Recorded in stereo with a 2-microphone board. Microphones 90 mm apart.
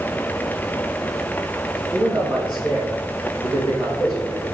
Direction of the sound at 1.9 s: 50° right (ahead or behind).